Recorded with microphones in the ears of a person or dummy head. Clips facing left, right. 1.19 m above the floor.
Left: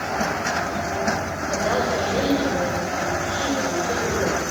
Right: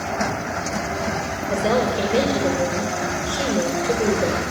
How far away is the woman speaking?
About 5 m.